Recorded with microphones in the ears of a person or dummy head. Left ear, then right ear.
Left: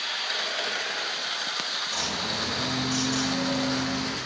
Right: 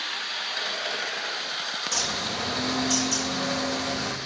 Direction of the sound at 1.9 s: 55° right (ahead or behind).